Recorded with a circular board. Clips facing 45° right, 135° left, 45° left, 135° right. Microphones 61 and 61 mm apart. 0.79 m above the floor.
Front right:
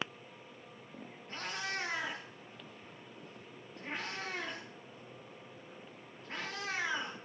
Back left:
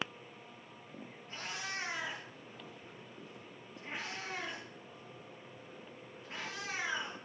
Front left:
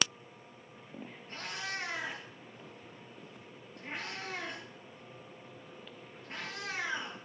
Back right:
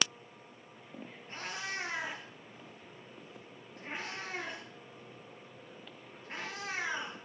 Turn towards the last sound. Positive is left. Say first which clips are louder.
# front right 3 dB, even
turn(degrees=-80)